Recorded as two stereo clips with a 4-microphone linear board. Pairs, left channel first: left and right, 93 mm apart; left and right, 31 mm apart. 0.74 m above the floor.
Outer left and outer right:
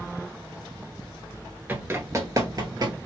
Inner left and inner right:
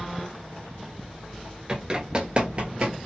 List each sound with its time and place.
1.7 s running footsteps: 20° right (ahead or behind), 0.7 m; by 3.0 s 45° right (ahead or behind), 1.1 m